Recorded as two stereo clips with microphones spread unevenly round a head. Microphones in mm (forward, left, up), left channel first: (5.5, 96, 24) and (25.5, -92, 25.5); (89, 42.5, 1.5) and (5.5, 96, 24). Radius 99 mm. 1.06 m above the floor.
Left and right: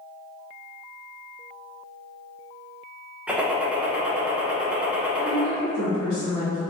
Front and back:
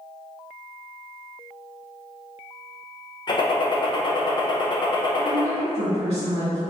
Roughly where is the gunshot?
Ahead.